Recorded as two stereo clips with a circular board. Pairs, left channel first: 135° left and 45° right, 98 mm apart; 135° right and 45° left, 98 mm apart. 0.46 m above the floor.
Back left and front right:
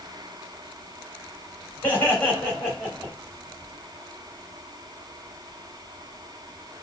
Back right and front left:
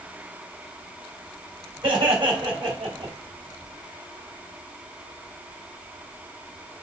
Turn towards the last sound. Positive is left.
turn(degrees=55)